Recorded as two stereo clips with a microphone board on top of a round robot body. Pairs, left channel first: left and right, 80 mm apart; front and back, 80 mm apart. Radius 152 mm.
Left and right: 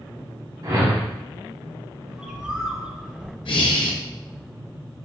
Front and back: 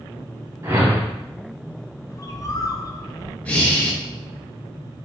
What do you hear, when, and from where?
0.6 s a whoosh: 125° right, 1.4 m
2.1 s a bird: 15° right, 0.7 m
3.5 s breathing: 75° left, 0.8 m